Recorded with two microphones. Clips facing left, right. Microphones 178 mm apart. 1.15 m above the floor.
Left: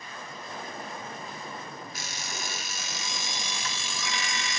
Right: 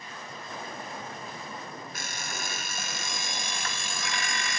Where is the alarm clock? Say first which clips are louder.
Right 1 dB; 55° right (ahead or behind), 0.8 m.